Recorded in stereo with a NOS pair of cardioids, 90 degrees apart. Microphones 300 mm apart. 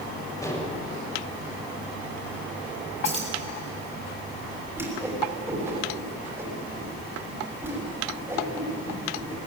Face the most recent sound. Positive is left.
turn(degrees=-10)